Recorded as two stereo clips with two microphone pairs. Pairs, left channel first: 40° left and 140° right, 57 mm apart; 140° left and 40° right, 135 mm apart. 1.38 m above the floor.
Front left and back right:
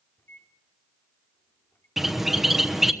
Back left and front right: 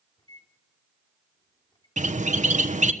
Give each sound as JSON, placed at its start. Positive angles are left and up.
{"t": 0.2, "sound": "a microwave", "azimuth_deg": 85, "distance_m": 3.5}
{"t": 2.0, "sound": "a bird", "azimuth_deg": -55, "distance_m": 1.2}